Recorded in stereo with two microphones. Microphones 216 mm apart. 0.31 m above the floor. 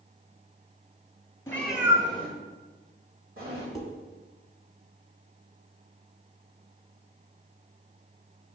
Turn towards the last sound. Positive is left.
turn(degrees=0)  # may be behind; listen again after turning